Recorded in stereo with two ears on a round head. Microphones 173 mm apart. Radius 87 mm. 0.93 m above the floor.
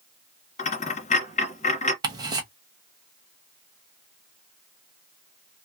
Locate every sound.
0.6 s a dropped coin: 40° left (ahead or behind), 1.1 m
2.0 s ticking: 20° right (ahead or behind), 0.9 m